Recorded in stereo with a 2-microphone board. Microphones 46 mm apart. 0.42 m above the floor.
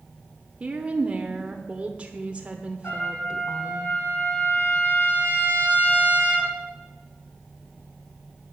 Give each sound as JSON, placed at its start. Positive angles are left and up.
{"t": 0.6, "sound": "a woman speaking", "side_deg": -25, "distance_m": 0.9}
{"t": 2.8, "sound": "a trumpet", "side_deg": 45, "distance_m": 3.0}